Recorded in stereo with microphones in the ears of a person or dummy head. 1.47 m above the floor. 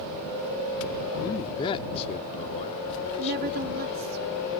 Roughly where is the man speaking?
Left.